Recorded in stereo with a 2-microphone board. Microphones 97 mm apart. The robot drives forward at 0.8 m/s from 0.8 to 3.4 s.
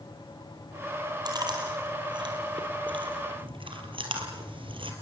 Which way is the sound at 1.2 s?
45° right (ahead or behind).